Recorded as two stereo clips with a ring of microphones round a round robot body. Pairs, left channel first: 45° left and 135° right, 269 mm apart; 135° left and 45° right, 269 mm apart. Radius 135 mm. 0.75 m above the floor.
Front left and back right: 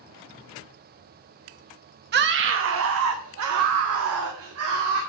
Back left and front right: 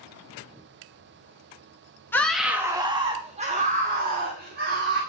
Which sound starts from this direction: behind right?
A scream, at 2.1 s.